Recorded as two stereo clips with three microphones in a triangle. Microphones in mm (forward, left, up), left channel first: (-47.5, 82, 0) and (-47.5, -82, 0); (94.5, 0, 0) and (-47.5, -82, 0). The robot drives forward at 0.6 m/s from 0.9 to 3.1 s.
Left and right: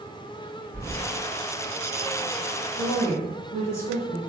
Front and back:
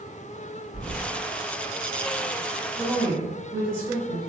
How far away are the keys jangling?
About 1.7 m.